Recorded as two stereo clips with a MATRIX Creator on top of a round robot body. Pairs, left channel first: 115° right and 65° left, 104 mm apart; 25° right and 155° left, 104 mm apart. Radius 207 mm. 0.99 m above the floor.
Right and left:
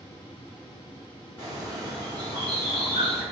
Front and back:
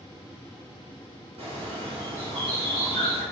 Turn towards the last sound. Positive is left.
turn(degrees=-175)